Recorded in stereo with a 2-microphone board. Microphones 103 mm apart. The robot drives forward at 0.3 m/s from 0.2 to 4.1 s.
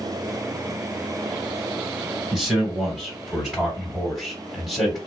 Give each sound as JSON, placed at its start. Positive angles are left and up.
{"t": 2.3, "sound": "a man speaking", "side_deg": 0, "distance_m": 2.0}